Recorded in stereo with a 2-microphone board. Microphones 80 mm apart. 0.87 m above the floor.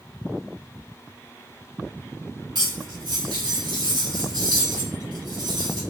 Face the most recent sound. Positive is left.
turn(degrees=-55)  # may be behind; listen again after turning